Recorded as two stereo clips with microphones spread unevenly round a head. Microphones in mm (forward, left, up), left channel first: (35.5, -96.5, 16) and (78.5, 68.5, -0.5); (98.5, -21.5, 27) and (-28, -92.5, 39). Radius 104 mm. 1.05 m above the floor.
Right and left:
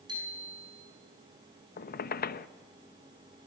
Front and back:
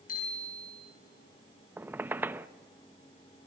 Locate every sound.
0.1 s a bicycle bell: 10° left, 9.5 m
1.8 s a squeak: 75° right, 0.8 m